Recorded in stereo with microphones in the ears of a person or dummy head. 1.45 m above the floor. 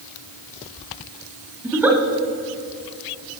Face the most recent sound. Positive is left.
turn(degrees=-10)  # may be behind; listen again after turning